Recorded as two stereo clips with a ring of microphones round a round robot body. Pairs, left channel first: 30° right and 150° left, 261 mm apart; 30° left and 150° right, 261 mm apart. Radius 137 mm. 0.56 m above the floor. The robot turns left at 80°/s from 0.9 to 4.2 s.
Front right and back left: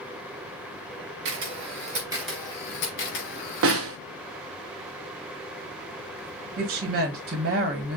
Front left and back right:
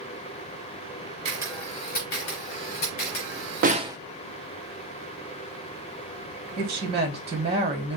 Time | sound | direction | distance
1.2 | a camera shutter | 145° left | 3.5 m
3.6 | a snare drum | 160° left | 0.6 m
6.6 | a woman speaking | 160° left | 1.3 m